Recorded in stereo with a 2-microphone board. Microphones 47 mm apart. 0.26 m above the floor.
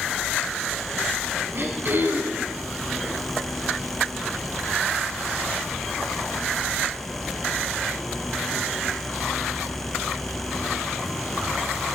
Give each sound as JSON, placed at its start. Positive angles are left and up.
{"t": 1.5, "sound": "throat clearing", "side_deg": -55, "distance_m": 1.7}